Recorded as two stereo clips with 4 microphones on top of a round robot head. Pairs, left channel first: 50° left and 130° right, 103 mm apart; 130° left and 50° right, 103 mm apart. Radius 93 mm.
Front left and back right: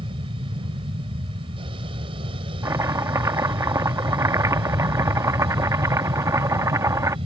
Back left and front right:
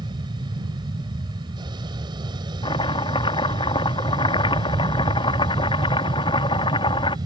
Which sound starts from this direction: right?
An aircraft, at 0.0 s.